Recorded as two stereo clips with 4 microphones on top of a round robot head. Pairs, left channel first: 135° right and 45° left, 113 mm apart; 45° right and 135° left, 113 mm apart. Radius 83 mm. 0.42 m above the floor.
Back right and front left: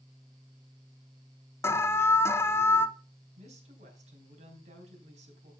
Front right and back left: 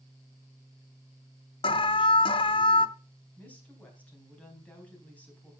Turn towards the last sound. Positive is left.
turn(degrees=30)